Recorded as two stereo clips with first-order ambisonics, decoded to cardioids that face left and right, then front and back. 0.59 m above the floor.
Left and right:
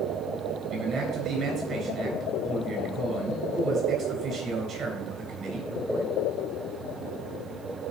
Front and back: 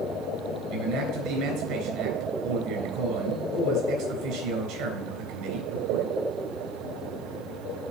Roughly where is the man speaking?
Behind right.